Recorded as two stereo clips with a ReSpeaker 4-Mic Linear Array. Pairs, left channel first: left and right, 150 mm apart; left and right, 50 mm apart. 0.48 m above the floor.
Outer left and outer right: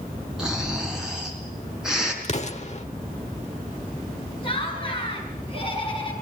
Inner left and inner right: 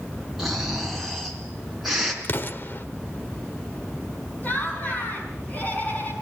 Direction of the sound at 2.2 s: 50° left (ahead or behind).